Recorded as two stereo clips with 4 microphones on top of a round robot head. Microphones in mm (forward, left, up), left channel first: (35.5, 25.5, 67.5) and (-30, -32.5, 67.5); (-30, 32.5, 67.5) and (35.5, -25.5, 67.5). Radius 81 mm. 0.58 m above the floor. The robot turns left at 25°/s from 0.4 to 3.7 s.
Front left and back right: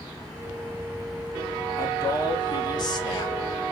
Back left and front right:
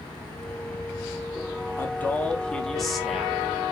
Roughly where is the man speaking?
Left.